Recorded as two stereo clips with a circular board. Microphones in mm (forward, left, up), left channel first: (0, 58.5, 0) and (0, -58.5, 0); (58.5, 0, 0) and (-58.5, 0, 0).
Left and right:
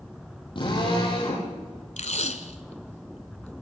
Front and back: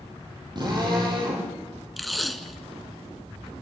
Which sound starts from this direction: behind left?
A drill, at 0.6 s.